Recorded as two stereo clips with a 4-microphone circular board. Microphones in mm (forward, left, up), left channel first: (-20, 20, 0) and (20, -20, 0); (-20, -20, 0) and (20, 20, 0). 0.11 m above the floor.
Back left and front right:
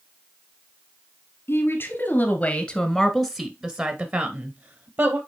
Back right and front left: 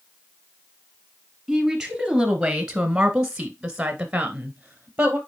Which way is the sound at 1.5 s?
140° left.